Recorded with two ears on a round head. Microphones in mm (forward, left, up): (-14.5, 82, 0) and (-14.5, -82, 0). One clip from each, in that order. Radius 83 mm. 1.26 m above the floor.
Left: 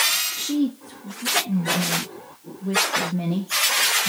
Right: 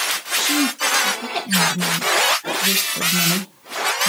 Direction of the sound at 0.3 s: 55° right (ahead or behind).